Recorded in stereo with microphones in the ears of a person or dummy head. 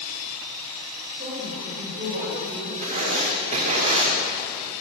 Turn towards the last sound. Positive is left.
turn(degrees=-40)  # may be behind; listen again after turning